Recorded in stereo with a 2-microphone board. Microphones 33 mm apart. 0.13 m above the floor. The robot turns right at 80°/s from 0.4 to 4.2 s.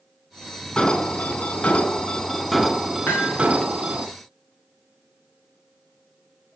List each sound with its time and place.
0.8 s an alarm: 35° left, 1.5 m; by 4.1 s 65° right, 1.5 m
3.1 s hammering: 65° left (ahead or behind), 3 m; by 3.4 s 85° left, 3 m